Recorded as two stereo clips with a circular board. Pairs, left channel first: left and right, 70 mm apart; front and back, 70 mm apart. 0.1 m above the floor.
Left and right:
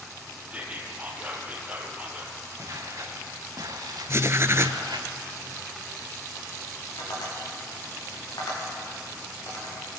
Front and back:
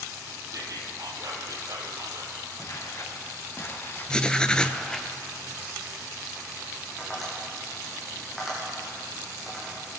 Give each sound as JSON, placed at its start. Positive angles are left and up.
{"t": 0.5, "sound": "whispering", "azimuth_deg": -155, "distance_m": 2.5}
{"t": 2.6, "sound": "footsteps", "azimuth_deg": -45, "distance_m": 3.5}
{"t": 4.1, "sound": "writing", "azimuth_deg": -70, "distance_m": 0.6}
{"t": 7.0, "sound": "tapping", "azimuth_deg": 90, "distance_m": 7.5}